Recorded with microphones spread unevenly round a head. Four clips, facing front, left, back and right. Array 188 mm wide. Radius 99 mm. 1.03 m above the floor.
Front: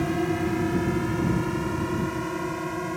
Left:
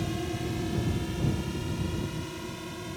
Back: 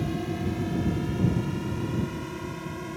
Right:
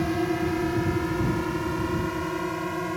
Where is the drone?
30° right; by 3.0 s 35° right.